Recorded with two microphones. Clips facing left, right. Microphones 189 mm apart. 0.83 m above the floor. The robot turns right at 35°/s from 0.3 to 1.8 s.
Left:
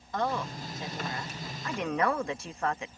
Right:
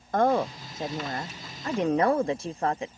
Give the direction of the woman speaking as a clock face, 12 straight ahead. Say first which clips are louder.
Right 8 dB; 3 o'clock.